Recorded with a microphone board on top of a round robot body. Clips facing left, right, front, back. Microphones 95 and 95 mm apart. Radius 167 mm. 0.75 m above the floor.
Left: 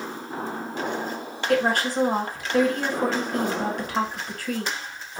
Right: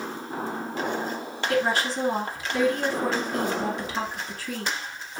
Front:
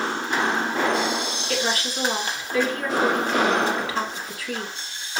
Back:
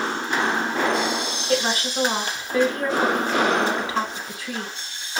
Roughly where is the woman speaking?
Behind left.